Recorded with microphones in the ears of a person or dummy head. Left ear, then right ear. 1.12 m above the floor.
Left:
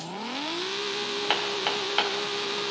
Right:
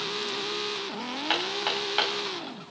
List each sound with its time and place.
1.3 s hammering: 10° left (ahead or behind), 2 m